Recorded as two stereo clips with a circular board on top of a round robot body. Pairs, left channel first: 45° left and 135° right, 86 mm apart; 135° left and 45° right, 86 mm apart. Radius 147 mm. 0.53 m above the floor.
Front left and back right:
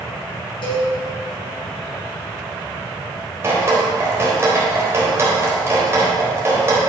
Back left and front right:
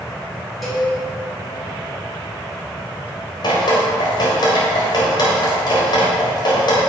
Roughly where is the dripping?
Behind.